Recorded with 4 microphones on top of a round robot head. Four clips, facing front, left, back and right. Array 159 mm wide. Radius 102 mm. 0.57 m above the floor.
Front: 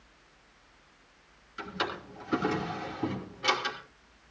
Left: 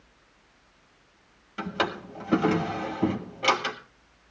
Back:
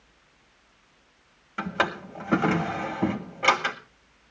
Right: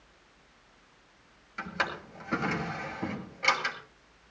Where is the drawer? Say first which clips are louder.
Left 5 dB, back 7 dB; 155° left, 1.7 m.